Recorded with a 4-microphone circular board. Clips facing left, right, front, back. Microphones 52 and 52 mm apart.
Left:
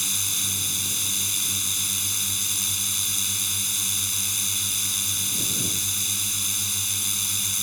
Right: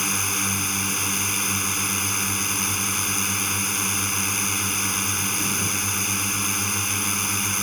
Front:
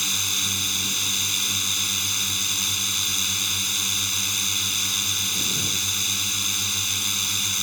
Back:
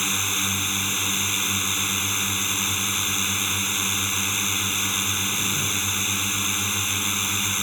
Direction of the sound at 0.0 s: 120° right.